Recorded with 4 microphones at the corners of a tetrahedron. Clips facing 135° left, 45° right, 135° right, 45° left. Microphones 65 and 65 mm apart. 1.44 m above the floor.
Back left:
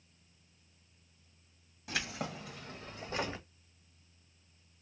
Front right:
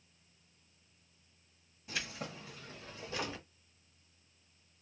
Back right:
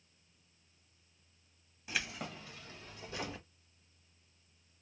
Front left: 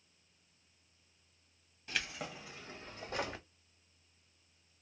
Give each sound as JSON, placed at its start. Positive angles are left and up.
{"t": 1.9, "sound": "keys jangling", "azimuth_deg": 145, "distance_m": 1.5}